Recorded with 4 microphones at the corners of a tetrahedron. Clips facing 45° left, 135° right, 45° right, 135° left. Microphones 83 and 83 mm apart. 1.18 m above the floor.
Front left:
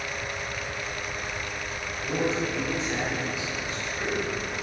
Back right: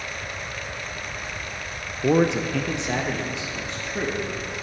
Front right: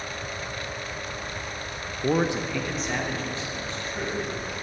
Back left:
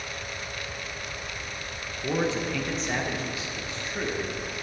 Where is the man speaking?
105° right, 0.6 m; by 4.5 s 150° right, 2 m.